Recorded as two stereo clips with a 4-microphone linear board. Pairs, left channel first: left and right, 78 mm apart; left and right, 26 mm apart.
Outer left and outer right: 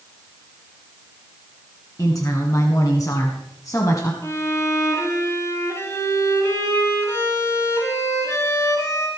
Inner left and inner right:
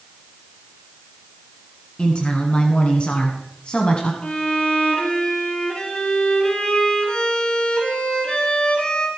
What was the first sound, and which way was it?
A woman speaking, 45° left (ahead or behind).